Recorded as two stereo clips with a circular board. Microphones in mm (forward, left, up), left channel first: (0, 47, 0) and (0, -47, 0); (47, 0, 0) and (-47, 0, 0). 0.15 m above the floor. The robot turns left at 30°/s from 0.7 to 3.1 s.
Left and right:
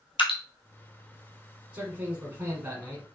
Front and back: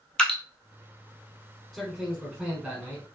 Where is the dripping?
80° left, 0.9 m.